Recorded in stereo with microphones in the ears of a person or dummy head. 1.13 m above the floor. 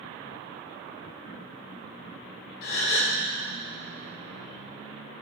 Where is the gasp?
60° left (ahead or behind), 1.7 m.